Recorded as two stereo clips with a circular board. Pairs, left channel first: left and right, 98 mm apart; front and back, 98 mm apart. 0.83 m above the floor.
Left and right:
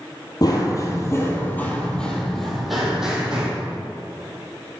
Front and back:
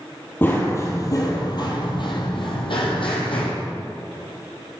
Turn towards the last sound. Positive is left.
turn(degrees=-10)